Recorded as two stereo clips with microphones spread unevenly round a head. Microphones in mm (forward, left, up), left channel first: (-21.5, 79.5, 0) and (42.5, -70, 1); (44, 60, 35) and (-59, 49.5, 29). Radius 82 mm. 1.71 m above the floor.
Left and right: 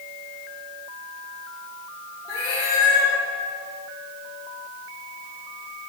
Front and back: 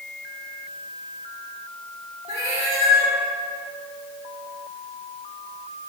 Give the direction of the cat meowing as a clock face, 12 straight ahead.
6 o'clock.